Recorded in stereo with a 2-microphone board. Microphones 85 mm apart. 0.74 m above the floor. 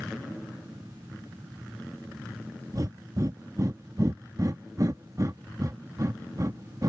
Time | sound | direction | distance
2.7 | breathing | 45° right (ahead or behind) | ?